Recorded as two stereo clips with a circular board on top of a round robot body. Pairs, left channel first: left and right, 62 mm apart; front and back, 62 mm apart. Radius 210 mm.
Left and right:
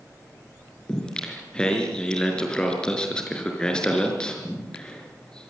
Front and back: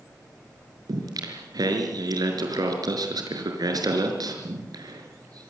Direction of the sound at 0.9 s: 165° left.